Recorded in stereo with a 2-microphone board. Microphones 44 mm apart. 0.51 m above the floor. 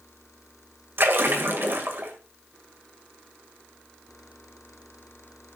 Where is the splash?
60° right (ahead or behind), 2 m.